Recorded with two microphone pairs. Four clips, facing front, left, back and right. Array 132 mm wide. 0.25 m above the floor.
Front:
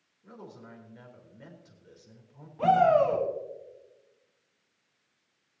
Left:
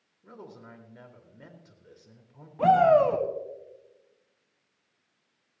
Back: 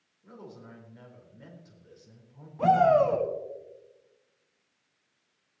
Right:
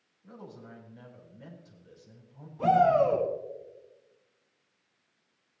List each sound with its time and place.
0.2 s a man speaking: 80° left, 4.5 m
2.6 s a shout: 95° left, 1.4 m